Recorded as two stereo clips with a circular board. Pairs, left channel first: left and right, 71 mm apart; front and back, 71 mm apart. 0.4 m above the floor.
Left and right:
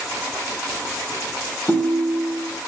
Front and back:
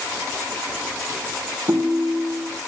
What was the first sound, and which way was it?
A ringtone, 160° left.